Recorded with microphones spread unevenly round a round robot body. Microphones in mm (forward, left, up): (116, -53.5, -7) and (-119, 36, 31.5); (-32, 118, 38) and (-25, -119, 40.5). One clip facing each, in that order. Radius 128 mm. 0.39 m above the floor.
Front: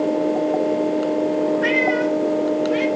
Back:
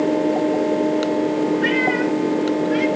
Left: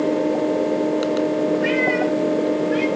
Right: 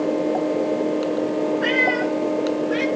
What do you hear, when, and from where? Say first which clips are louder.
1.6 s a cat meowing: back 1 dB, left 2 dB; 100° right, 3.5 m; by 2.9 s 105° right, 4 m